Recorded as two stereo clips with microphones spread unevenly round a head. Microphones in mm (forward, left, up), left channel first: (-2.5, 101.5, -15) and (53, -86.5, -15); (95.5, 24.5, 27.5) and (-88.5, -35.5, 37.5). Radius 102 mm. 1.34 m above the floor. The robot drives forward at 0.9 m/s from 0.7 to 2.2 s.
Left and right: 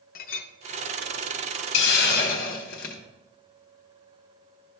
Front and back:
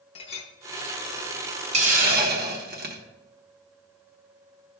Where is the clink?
75° left, 0.8 m.